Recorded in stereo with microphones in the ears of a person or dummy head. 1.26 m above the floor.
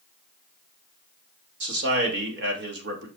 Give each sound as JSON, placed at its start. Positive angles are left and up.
{"t": 1.6, "sound": "a man speaking", "side_deg": -55, "distance_m": 2.5}